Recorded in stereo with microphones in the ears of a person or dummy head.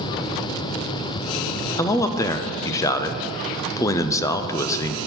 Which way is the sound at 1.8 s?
20° left (ahead or behind).